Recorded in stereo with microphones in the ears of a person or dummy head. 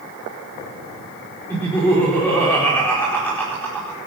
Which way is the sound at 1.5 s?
15° left (ahead or behind).